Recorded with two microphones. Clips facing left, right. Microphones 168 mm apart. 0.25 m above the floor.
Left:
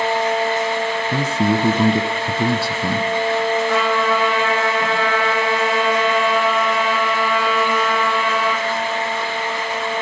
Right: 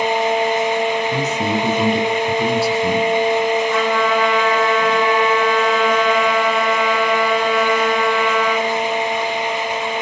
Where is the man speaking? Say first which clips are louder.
Left 1 dB; 30° left (ahead or behind), 1.4 m.